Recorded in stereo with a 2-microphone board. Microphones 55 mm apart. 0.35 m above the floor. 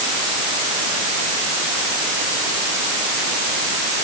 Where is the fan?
I don't hear a fan.